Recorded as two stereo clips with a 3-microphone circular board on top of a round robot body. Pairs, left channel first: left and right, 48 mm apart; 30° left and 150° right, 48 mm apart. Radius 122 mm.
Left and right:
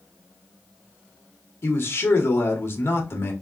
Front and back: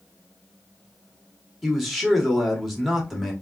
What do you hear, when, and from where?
1.6 s a man speaking: 120° left, 1.5 m